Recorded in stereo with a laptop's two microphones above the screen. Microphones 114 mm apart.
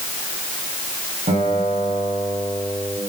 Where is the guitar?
80° right, 7.5 m.